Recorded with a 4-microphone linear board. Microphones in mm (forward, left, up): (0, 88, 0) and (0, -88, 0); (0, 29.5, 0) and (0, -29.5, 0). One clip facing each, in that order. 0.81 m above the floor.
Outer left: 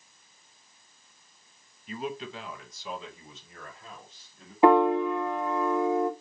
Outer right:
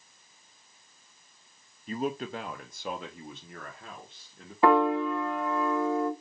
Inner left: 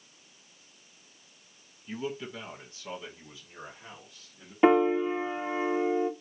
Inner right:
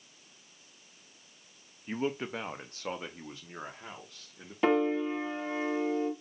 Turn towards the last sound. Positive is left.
turn(degrees=20)  # may be behind; listen again after turning